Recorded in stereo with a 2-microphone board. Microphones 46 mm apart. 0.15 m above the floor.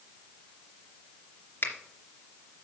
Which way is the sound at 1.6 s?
50° left (ahead or behind).